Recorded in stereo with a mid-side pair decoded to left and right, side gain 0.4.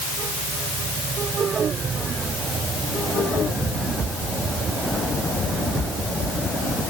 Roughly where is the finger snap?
I don't hear a finger snap.